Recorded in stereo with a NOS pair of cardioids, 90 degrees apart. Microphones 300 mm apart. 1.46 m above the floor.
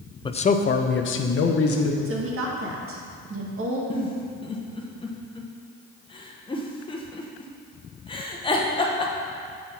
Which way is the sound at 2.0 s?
50° right.